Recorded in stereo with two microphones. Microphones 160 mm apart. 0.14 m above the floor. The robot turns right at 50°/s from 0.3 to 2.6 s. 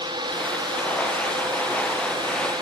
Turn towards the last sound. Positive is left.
No sound to turn to.